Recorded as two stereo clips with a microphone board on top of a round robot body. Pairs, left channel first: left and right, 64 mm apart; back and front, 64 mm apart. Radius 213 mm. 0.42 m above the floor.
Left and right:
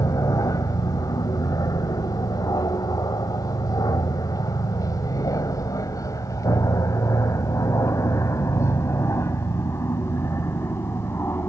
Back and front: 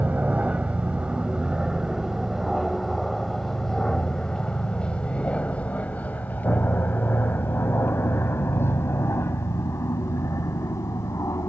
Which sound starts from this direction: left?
An aircraft, at 0.0 s.